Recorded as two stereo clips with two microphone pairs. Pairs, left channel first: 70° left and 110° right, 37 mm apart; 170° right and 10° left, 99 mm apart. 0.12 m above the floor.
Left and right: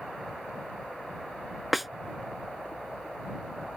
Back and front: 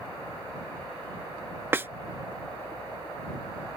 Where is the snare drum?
20° right.